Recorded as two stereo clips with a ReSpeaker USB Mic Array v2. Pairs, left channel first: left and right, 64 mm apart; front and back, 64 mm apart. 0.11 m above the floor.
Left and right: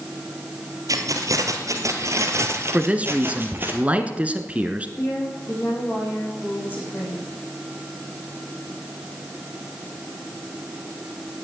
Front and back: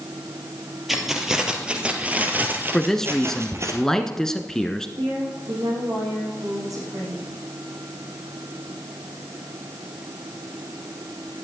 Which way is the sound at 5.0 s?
150° left.